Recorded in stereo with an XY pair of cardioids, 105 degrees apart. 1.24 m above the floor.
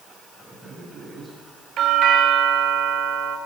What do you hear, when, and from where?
0.4 s a man speaking: 15° right, 9.5 m
1.8 s a doorbell: 60° right, 3.5 m